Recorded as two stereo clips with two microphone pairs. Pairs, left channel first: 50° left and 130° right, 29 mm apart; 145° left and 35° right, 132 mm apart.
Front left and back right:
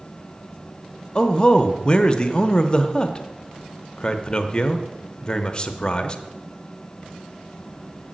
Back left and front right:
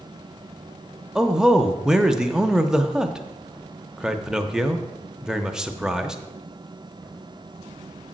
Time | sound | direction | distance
1.1 | a man speaking | 45° left | 0.7 m